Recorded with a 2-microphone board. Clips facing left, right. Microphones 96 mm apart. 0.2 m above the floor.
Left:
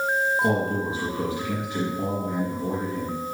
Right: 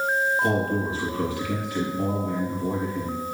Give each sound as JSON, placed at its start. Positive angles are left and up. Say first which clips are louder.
{"t": 0.4, "sound": "a man speaking", "louder": "even", "side_deg": 25, "distance_m": 3.5}